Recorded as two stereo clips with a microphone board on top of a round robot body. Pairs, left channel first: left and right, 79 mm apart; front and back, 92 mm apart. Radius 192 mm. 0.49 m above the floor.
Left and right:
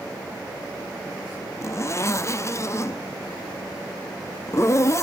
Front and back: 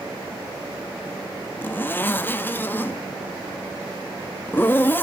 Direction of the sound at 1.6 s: 60° left.